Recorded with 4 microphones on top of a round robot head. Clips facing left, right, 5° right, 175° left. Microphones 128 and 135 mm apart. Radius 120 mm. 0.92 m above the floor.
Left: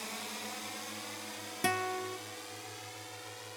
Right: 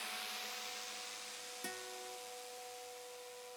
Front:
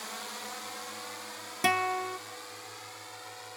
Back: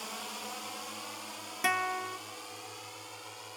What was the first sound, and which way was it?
A drone, 100° left.